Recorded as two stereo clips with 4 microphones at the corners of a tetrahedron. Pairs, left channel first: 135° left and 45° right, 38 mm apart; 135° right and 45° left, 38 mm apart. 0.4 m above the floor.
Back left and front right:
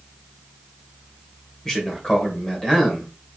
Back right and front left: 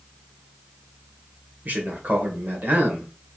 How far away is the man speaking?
About 1.8 m.